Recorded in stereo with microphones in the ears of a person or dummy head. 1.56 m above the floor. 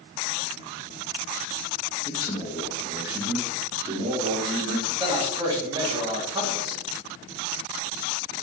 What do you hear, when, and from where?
2.0 s a man speaking: 25° left (ahead or behind), 0.9 m; by 4.9 s 45° right (ahead or behind), 1.5 m
5.0 s a man speaking: 25° right (ahead or behind), 1.2 m